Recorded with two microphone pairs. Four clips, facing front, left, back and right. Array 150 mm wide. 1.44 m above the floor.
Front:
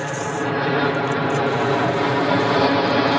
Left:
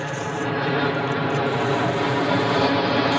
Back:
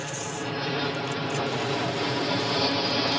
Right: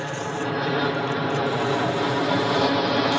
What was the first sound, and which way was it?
An aircraft, 10° left.